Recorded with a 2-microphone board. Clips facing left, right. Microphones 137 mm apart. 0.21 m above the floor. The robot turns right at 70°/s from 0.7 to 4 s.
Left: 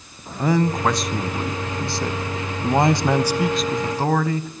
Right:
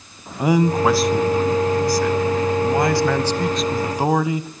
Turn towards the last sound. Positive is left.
turn(degrees=-155)